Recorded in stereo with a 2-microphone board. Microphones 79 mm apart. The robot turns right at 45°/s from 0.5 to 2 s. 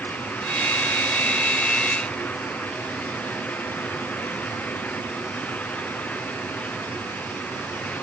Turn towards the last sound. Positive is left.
No sound to turn to.